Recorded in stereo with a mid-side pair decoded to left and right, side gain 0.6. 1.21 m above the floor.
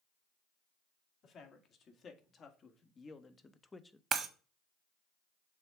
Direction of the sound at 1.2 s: 50° left.